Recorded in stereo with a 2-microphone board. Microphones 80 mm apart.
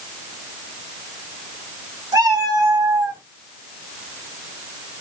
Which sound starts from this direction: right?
A cat meowing, at 2.1 s.